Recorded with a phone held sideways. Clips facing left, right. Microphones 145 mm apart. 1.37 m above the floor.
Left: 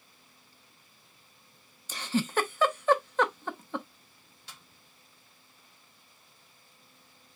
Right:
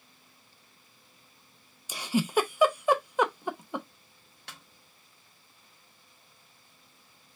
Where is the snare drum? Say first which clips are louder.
Right 4 dB; 60° right (ahead or behind), 0.9 m.